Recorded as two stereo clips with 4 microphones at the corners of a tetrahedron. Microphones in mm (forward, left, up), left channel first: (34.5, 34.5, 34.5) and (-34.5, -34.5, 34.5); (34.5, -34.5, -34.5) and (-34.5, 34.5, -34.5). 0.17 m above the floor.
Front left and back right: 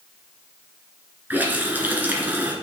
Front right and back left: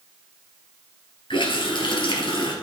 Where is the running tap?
65° right, 2 m.